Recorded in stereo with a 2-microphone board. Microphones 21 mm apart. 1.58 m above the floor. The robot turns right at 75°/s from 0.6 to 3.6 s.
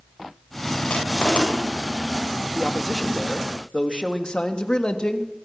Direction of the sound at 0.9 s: 60° left (ahead or behind).